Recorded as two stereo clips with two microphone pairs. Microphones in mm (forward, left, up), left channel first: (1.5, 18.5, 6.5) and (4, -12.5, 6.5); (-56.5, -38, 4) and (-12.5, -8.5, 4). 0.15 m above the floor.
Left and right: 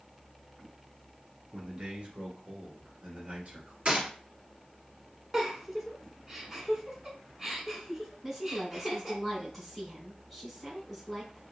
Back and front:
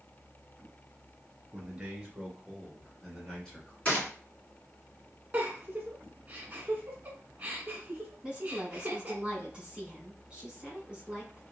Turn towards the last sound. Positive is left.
turn(degrees=0)